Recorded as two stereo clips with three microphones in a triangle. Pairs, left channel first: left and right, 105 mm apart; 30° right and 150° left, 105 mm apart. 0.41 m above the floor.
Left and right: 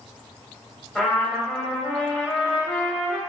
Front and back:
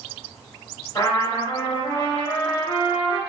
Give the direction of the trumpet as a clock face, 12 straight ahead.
12 o'clock.